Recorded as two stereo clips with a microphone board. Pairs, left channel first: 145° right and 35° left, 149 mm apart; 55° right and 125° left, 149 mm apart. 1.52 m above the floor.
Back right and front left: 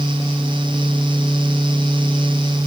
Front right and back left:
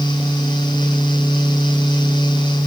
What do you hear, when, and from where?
Only background noise.